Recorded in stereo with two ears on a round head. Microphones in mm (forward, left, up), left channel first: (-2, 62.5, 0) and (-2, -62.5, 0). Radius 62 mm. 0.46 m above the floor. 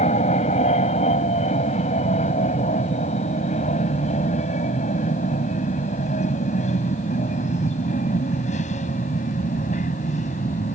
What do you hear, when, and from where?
0.0 s an aircraft: 45° left (ahead or behind); by 10.8 s 55° left (ahead or behind)